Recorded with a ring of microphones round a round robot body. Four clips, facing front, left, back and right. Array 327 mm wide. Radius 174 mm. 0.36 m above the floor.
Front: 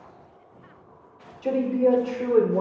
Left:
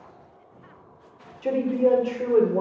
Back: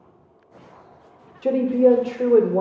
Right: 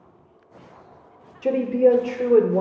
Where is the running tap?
No running tap in this recording.